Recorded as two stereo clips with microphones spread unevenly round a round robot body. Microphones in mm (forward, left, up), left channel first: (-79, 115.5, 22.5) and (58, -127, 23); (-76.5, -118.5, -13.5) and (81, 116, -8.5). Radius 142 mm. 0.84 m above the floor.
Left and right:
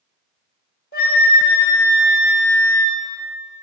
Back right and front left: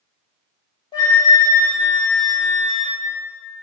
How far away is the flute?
About 1.4 m.